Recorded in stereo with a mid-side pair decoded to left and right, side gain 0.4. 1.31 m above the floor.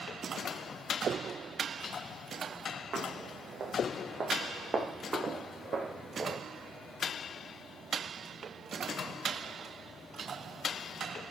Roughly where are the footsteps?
Ahead right.